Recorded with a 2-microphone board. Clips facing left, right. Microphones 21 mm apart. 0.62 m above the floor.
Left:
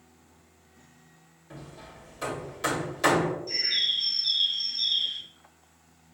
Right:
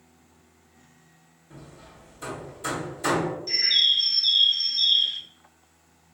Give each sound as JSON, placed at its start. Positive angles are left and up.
{"t": 1.5, "sound": "hammering", "side_deg": 65, "distance_m": 1.8}
{"t": 3.5, "sound": "a bird", "side_deg": -45, "distance_m": 0.6}